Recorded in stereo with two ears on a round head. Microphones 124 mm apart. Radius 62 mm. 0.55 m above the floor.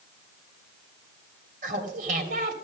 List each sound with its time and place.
1.6 s laughter: 60° right (ahead or behind), 3 m